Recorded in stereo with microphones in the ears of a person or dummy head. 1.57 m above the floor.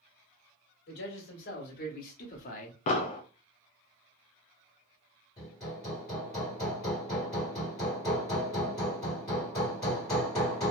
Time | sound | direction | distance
0.9 | a man speaking | 55° left (ahead or behind) | 1.6 m
2.9 | an explosion | 40° left (ahead or behind) | 0.5 m
5.4 | hammering | 10° left (ahead or behind) | 1.3 m